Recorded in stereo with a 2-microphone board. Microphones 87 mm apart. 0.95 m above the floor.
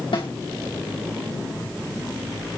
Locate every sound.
0.1 s a snare drum: 80° left, 5 m